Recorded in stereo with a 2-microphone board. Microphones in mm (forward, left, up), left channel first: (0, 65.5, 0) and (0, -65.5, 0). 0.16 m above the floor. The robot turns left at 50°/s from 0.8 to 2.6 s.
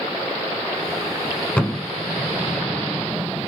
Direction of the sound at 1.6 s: 10° left (ahead or behind).